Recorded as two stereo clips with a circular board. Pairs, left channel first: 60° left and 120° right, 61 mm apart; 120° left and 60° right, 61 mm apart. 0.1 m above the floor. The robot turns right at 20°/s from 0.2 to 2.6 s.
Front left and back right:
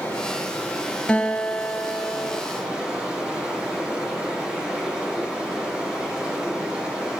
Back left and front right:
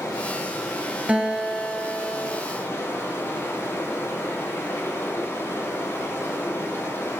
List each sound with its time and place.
0.0 s running water: 120° left, 4 m; by 7.2 s 170° left, 4 m
1.1 s a guitar: 5° right, 1.6 m; by 2.4 s 20° left, 1.6 m